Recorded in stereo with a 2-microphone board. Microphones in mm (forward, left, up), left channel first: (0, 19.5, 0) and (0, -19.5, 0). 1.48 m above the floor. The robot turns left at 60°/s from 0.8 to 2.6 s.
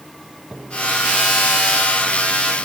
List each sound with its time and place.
Only background noise.